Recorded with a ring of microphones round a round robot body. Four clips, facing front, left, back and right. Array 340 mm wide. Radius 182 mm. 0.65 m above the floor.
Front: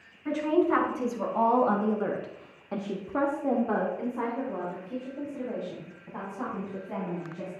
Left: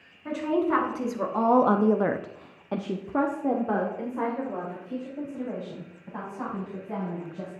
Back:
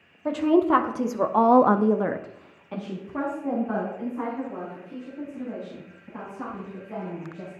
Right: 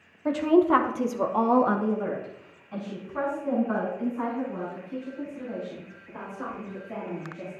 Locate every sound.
0.2 s a woman speaking: 145° right, 1.7 m; by 7.5 s 55° left, 5 m